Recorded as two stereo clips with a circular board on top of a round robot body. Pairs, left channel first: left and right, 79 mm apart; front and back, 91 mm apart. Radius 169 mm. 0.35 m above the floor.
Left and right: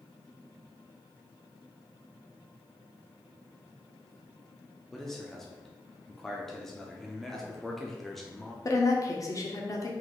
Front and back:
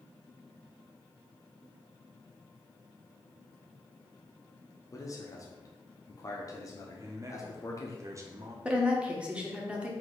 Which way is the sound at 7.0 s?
175° left.